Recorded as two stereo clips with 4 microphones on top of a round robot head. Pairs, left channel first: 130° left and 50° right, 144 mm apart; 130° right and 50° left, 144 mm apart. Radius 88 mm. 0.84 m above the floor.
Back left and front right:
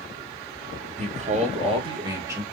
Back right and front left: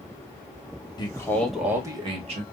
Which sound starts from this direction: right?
A man speaking, at 1.0 s.